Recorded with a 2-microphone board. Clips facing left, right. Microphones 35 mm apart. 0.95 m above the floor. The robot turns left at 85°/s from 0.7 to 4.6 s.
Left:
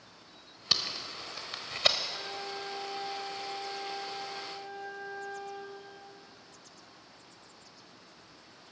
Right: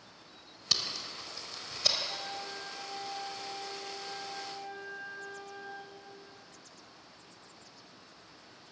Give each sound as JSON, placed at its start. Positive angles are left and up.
{"t": 0.7, "sound": "tape being pulled", "side_deg": 20, "distance_m": 1.1}
{"t": 2.1, "sound": "a flute", "azimuth_deg": -120, "distance_m": 4.0}